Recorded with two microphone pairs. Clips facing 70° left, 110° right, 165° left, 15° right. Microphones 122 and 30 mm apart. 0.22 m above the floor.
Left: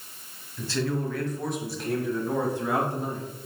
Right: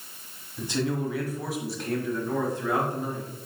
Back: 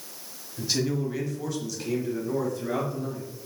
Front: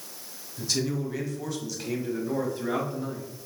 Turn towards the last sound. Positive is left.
turn(degrees=25)